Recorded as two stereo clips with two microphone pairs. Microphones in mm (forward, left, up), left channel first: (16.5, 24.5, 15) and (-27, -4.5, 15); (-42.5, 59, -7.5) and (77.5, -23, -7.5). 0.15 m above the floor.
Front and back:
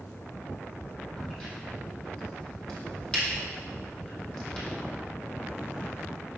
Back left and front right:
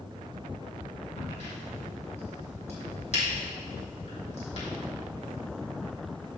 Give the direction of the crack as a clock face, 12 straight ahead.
8 o'clock.